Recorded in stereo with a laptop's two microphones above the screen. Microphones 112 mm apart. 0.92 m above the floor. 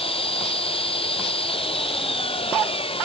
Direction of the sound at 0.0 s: 55° left (ahead or behind).